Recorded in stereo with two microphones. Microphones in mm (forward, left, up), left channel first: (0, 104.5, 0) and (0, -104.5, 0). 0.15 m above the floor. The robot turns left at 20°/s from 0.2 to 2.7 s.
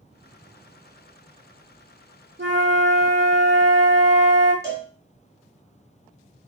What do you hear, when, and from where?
2.4 s a flute: 65° right (ahead or behind), 0.7 m; by 4.5 s 70° right (ahead or behind), 0.7 m
4.6 s a cowbell: 15° right (ahead or behind), 1.2 m